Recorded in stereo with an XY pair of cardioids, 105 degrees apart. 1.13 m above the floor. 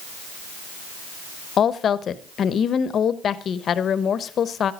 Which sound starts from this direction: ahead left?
A woman speaking, at 1.6 s.